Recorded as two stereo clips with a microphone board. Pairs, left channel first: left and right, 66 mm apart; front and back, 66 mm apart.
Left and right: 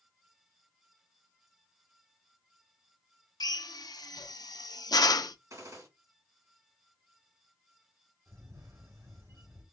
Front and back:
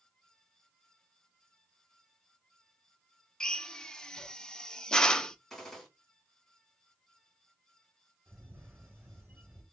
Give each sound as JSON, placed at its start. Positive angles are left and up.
{"t": 3.4, "sound": "a drill", "azimuth_deg": 80, "distance_m": 0.5}
{"t": 5.5, "sound": "a gunshot", "azimuth_deg": -85, "distance_m": 1.9}
{"t": 8.3, "sound": "a camera shutter", "azimuth_deg": -125, "distance_m": 2.0}